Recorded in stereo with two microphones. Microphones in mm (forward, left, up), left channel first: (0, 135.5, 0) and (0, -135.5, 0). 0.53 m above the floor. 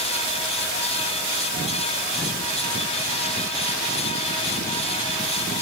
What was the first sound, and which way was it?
Only background noise.